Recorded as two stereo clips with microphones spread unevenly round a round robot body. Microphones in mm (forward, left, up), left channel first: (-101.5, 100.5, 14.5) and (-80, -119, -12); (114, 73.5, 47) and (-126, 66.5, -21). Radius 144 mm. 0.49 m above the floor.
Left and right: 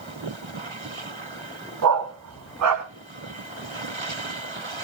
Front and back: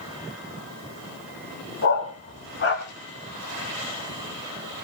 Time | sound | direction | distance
1.8 | a dog barking | 55° right | 1.4 m